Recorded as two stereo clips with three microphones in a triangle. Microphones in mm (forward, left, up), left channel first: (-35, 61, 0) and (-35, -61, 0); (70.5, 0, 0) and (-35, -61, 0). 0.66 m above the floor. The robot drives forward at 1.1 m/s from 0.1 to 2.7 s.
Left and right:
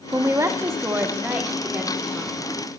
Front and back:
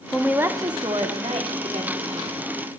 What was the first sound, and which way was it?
A woman speaking, 55° right.